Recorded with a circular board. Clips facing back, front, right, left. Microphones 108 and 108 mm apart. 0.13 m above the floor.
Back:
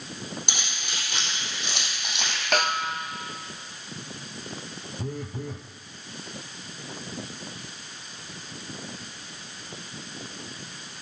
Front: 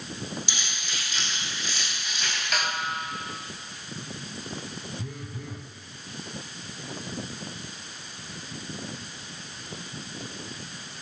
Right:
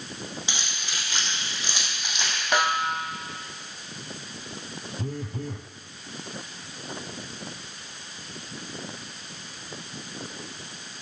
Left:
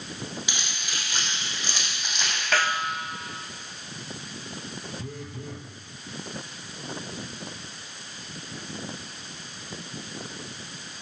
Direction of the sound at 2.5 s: 155° right.